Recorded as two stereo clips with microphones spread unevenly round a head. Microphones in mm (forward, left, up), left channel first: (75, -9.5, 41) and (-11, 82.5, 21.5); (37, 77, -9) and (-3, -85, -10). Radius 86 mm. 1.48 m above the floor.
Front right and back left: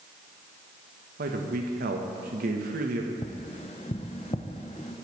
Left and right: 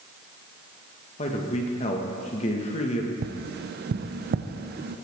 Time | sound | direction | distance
1.2 | a man speaking | 130° left | 1.2 m
3.2 | tapping | 95° right | 0.6 m